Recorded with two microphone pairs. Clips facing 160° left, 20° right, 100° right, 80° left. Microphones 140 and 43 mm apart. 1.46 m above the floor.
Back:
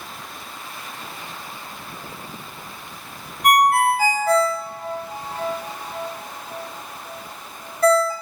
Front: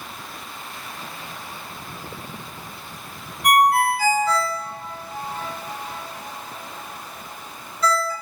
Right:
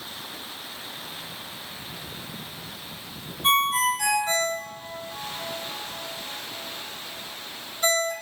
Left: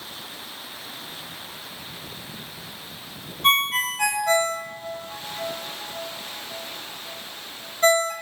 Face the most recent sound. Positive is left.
turn(degrees=125)